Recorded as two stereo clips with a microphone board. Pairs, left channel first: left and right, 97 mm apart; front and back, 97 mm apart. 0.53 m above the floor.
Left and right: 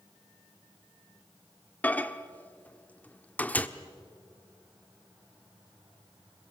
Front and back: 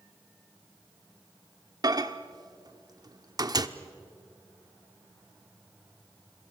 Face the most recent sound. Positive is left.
turn(degrees=155)